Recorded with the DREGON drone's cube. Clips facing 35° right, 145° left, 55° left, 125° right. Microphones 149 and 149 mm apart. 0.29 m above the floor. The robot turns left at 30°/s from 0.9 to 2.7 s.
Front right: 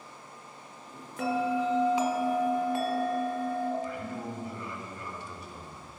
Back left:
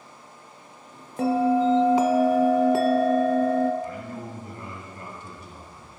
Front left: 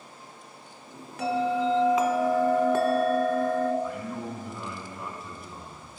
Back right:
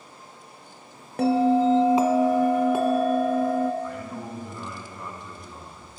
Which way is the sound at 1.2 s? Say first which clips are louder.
Back left 8 dB, back right 6 dB; 160° right.